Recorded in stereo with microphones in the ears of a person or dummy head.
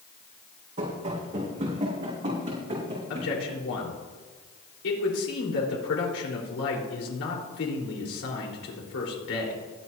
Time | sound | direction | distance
0.8 | running footsteps | 35° right (ahead or behind) | 4.5 m
3.1 | a man speaking | 70° left (ahead or behind) | 4 m